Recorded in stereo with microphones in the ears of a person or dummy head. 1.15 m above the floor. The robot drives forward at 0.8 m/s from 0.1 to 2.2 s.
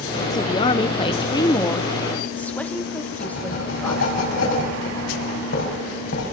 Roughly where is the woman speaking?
Centre.